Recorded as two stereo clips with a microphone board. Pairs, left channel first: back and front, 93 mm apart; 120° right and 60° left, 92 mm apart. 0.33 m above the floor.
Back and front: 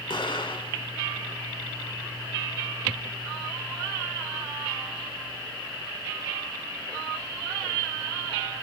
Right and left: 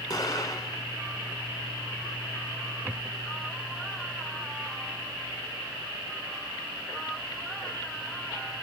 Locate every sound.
0.1 s an explosion: 160° right, 1.9 m